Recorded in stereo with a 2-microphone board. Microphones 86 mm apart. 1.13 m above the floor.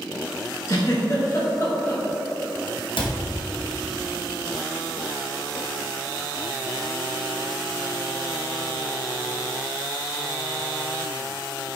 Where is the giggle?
40° left (ahead or behind), 1.7 m.